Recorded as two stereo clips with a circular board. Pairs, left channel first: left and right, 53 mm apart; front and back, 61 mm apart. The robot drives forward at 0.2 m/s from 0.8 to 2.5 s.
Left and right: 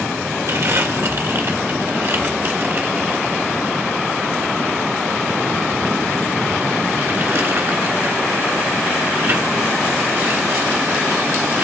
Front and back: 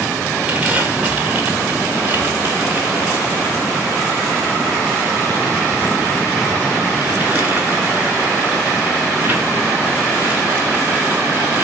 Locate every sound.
0.5 s crumpling: 115° right, 2 m; by 11.7 s 125° right, 2 m